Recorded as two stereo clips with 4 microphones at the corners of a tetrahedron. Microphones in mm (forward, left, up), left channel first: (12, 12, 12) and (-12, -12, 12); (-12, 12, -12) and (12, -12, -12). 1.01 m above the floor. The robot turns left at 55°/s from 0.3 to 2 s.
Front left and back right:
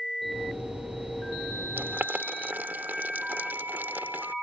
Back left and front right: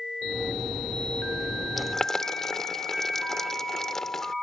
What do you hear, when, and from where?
1.8 s boiling: 140° right; by 4.3 s 150° right